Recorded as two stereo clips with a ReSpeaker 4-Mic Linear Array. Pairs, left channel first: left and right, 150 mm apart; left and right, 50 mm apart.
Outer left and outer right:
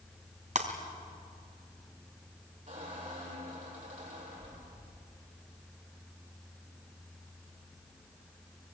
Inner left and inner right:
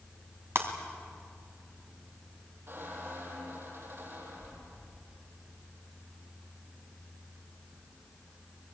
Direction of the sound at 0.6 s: 55° right (ahead or behind).